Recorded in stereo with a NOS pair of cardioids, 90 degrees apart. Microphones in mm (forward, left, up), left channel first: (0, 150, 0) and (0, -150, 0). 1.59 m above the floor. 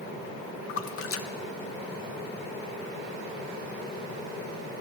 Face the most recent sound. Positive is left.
turn(degrees=50)